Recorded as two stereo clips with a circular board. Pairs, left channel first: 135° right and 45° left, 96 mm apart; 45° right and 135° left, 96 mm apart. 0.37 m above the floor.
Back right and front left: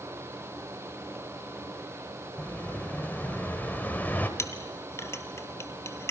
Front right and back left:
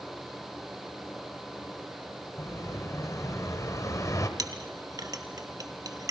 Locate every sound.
2.4 s an explosion: 75° right, 1.8 m
4.4 s a clink: 170° left, 1.4 m